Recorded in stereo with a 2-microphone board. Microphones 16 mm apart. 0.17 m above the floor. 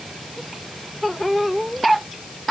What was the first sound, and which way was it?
Only background noise.